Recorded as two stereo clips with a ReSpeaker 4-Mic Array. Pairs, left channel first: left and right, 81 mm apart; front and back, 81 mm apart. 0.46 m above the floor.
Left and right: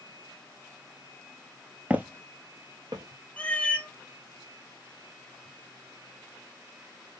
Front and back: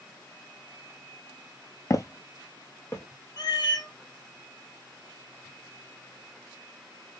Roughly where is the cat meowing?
Ahead.